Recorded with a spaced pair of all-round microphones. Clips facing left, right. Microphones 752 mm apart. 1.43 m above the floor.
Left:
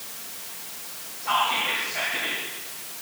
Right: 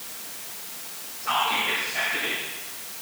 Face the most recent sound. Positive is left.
turn(degrees=-45)  # may be behind; listen again after turning